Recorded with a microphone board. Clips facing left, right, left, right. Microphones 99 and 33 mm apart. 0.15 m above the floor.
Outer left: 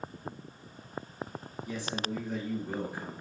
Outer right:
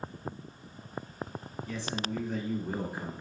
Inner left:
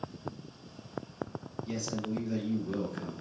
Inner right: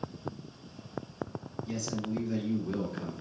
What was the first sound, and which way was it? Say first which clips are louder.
A man speaking: even, even; 20° left (ahead or behind).